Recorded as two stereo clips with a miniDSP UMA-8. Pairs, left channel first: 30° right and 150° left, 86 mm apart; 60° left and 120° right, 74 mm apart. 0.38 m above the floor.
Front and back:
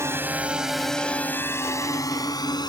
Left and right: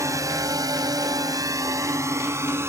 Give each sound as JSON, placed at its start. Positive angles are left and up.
{"t": 0.0, "sound": "a drone", "azimuth_deg": -155}